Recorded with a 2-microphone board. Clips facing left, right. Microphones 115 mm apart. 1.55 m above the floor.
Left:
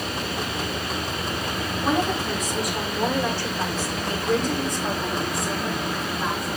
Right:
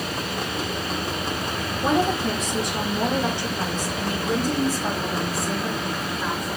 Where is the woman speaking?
30° right (ahead or behind), 3 m; by 6.5 s 5° left (ahead or behind), 5 m.